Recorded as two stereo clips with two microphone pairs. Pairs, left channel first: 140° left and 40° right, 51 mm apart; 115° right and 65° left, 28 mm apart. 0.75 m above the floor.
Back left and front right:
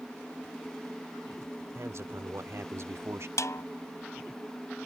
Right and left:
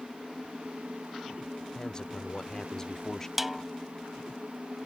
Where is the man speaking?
60° right; by 3.3 s 50° right.